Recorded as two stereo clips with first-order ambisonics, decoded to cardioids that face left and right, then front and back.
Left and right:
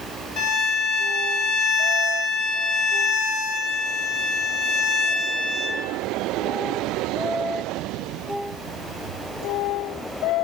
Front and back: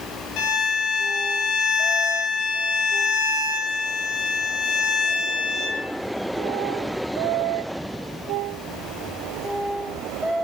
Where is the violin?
50° left, 4.5 m.